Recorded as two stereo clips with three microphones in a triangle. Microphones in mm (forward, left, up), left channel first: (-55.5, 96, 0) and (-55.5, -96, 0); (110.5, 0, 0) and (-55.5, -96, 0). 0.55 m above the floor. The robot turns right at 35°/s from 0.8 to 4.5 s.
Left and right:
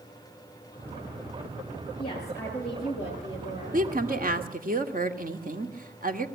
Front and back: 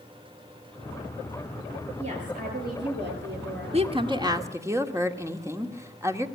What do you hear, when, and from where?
2.0 s a woman speaking: 155° left, 10 m; by 3.8 s 145° right, 10 m
3.7 s a woman speaking: 105° right, 1.7 m; by 6.3 s 80° right, 1.7 m